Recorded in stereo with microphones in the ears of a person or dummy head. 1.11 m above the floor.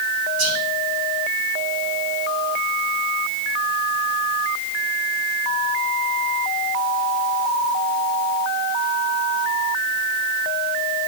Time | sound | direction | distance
0.4 | whispering | 85° right | 3.5 m